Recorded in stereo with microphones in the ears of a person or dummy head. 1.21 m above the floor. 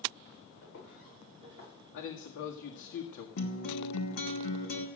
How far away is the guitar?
About 2 m.